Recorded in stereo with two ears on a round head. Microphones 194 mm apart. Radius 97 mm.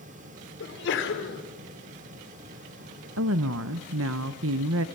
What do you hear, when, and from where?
0.6 s a sneeze: 55° left (ahead or behind), 4 m
3.2 s a woman speaking: 65° right (ahead or behind), 0.8 m